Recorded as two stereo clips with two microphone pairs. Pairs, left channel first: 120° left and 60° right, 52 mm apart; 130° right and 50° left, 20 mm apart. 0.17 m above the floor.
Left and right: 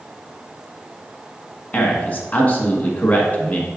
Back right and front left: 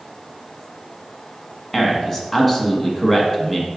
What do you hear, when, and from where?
1.7 s a man speaking: 160° left, 1.5 m